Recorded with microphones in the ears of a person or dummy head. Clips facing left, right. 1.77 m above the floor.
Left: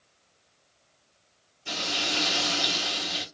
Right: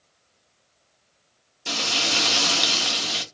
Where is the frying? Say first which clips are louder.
Right 3 dB; 75° right (ahead or behind), 0.7 m.